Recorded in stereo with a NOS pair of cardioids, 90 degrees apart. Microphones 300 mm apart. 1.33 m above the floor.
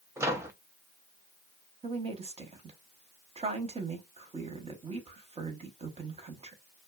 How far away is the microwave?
About 0.6 m.